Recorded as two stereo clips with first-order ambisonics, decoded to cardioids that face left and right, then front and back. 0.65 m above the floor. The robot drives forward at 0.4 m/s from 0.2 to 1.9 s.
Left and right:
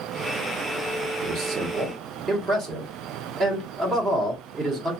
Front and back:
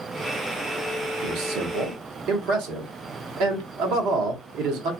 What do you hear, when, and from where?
1.2 s a man speaking: 145° right, 0.7 m; by 4.9 s 155° right, 0.9 m